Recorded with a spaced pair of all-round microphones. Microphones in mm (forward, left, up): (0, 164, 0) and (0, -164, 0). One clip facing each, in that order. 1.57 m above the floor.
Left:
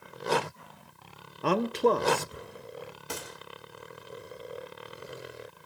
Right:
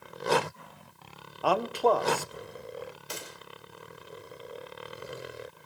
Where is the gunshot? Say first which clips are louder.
Left 3 dB; 60° left (ahead or behind), 4.5 m.